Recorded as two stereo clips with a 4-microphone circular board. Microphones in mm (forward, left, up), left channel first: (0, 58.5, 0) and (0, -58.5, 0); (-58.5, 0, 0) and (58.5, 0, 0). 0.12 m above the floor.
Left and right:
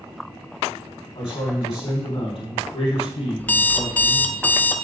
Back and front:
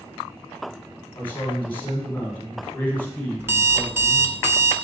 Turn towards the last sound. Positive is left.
turn(degrees=35)